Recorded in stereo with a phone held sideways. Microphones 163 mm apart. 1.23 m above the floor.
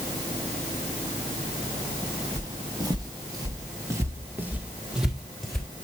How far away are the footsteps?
About 2.0 m.